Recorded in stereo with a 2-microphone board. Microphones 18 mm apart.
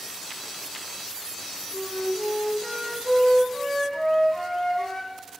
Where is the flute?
30° left (ahead or behind), 2.5 m.